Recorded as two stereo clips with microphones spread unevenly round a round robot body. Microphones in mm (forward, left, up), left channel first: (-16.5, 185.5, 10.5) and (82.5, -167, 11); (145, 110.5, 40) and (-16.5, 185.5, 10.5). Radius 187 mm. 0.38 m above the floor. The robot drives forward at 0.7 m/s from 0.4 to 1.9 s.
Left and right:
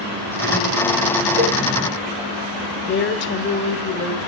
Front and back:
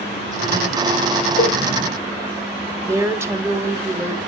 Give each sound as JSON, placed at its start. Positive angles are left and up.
{"t": 1.4, "sound": "a cowbell", "azimuth_deg": -55, "distance_m": 5.0}
{"t": 2.9, "sound": "a woman speaking", "azimuth_deg": 115, "distance_m": 1.3}